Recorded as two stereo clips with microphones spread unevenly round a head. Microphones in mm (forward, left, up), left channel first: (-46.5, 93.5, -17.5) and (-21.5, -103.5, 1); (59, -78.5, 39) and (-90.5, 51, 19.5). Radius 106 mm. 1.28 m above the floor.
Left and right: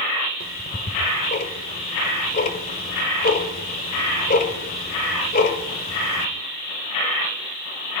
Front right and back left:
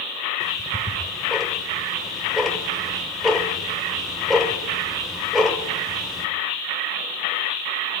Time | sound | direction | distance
0.4 | ticking | 45° left | 1.8 m